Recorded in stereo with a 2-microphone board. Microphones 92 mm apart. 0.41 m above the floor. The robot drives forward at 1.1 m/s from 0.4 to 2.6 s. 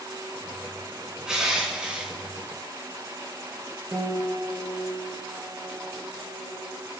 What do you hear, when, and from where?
1.3 s crushing: 10° right (ahead or behind), 3.5 m; by 2.1 s 15° right (ahead or behind), 3 m
3.9 s a piano: 40° right (ahead or behind), 2.5 m